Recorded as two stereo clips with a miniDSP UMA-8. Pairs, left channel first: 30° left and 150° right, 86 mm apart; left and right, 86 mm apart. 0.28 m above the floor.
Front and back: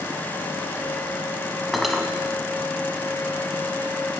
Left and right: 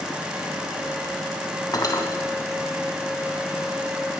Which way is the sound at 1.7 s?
120° left.